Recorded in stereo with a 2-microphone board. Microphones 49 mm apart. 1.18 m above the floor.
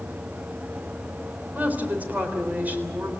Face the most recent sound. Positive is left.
turn(degrees=-35)  # may be behind; listen again after turning